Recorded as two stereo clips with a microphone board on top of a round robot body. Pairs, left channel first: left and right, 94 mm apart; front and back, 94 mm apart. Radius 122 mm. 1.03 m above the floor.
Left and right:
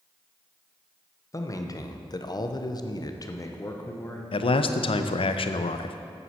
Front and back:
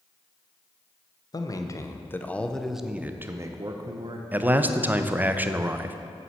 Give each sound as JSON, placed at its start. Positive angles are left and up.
{"t": 1.3, "sound": "a man speaking", "azimuth_deg": 40, "distance_m": 1.3}
{"t": 4.3, "sound": "a man speaking", "azimuth_deg": 110, "distance_m": 0.7}